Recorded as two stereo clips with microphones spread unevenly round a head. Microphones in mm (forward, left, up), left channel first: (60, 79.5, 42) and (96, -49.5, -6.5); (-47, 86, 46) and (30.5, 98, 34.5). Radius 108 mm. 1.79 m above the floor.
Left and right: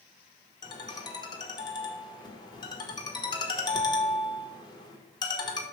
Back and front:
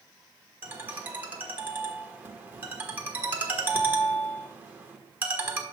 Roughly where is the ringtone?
Left.